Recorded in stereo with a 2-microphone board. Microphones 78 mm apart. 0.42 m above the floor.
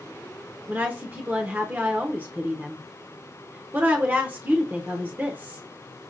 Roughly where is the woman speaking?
Right.